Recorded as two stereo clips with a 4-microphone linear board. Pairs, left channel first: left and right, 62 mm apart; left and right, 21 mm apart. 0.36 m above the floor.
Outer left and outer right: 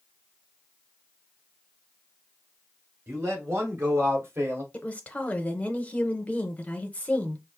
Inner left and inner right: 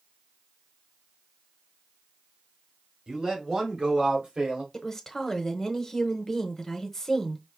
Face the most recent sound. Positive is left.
turn(degrees=20)  # may be behind; listen again after turning